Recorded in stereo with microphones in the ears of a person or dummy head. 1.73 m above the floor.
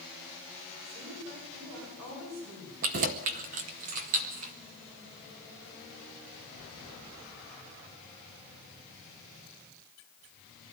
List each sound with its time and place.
0.8 s a woman speaking: 75° right (ahead or behind), 6.5 m
2.8 s keys jangling: 35° right (ahead or behind), 0.9 m